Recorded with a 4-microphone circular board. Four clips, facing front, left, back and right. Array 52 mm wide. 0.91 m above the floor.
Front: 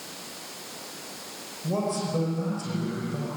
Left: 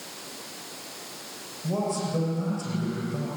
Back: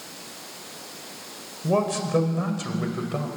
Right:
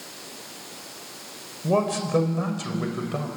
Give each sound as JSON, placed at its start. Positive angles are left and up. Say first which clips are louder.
{"t": 1.6, "sound": "a man speaking", "louder": "right 5 dB, back 4 dB", "azimuth_deg": -125, "distance_m": 4.5}